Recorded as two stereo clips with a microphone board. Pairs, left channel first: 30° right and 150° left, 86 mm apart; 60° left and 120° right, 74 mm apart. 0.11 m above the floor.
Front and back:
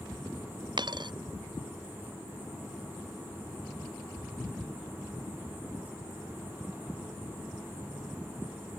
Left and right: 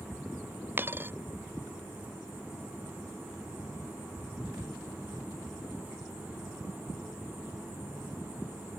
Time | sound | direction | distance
0.8 | a dropped coin | straight behind | ?